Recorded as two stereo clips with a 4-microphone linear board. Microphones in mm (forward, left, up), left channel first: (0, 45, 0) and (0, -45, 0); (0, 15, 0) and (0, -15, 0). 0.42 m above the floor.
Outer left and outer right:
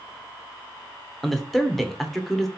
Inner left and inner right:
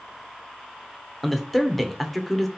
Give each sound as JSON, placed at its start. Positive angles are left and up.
{"t": 1.2, "sound": "a man speaking", "side_deg": 5, "distance_m": 0.8}